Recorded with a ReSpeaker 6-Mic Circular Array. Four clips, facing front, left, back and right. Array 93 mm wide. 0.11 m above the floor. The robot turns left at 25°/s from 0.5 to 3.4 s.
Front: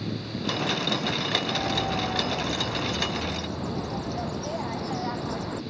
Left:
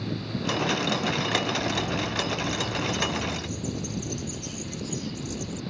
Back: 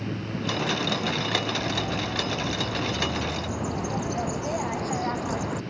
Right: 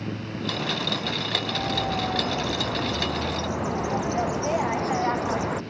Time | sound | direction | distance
1.4 | a bird | 50° right | ?